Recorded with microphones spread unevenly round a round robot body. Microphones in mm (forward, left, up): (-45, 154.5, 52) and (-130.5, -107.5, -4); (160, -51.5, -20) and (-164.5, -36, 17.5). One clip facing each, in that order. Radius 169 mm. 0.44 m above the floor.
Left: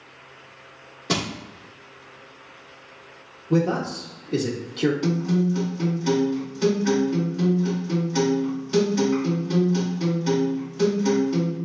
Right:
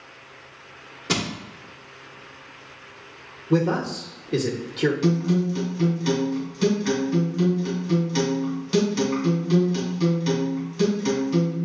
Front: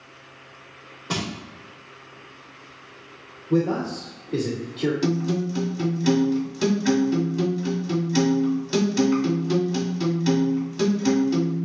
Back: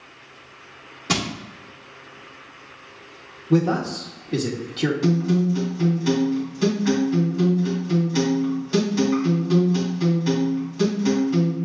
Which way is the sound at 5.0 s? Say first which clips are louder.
Right 1 dB, back 3 dB; 50° right.